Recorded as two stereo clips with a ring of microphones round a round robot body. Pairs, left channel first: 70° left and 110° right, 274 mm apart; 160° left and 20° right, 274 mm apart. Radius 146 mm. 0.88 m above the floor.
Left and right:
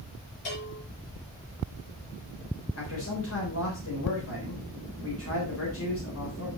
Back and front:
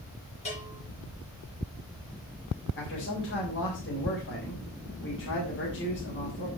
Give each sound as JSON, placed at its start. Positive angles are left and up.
{"t": 0.5, "sound": "a bell", "azimuth_deg": 90, "distance_m": 7.0}
{"t": 2.8, "sound": "a man speaking", "azimuth_deg": 110, "distance_m": 3.5}